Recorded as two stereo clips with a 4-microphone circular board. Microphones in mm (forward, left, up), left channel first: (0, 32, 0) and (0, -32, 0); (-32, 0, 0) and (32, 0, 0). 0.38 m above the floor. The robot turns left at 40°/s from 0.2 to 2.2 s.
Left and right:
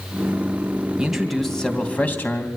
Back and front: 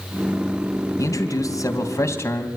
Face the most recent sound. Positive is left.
turn(degrees=145)